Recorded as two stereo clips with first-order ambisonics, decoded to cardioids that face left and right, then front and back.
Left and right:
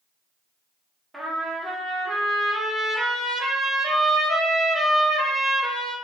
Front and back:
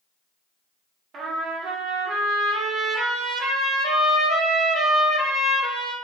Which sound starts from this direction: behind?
A trumpet, at 1.1 s.